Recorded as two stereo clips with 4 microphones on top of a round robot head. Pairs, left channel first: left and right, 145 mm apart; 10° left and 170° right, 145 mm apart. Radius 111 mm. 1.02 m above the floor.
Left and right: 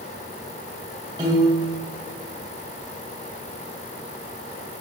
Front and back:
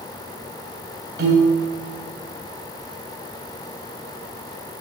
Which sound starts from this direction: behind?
A piano, at 1.2 s.